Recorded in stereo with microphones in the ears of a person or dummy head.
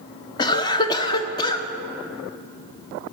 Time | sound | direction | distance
0.4 | a cough | 25° left (ahead or behind) | 0.6 m